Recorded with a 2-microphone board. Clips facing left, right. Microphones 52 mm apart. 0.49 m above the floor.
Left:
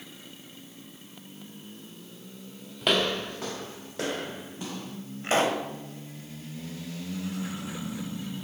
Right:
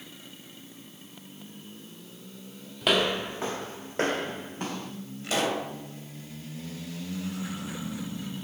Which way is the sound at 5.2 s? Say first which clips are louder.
Left 3 dB; 40° left (ahead or behind).